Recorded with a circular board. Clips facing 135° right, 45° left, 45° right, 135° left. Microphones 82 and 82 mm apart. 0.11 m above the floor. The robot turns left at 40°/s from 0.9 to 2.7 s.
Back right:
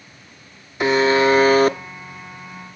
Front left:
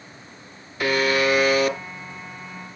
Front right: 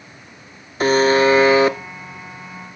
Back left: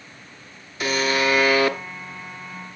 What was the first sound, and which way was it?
A buzzer, 75° right.